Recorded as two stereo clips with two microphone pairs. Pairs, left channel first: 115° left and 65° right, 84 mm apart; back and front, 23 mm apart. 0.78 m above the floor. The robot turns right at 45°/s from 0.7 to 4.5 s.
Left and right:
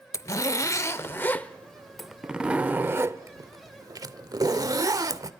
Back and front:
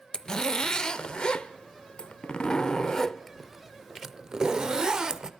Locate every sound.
0.1 s a zipper: 145° left, 0.5 m; by 5.3 s 45° right, 0.5 m